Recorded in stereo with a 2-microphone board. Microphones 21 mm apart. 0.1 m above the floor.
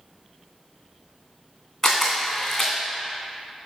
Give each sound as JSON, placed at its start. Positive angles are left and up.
{"t": 1.8, "sound": "a camera shutter", "side_deg": 30, "distance_m": 2.0}